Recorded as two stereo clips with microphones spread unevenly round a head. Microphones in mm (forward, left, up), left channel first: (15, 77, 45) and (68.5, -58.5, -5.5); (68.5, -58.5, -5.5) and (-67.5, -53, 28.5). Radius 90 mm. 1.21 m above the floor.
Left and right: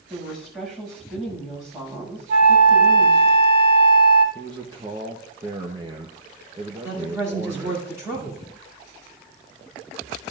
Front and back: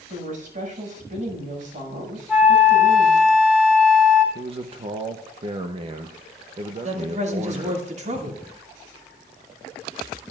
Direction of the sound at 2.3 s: 95° right.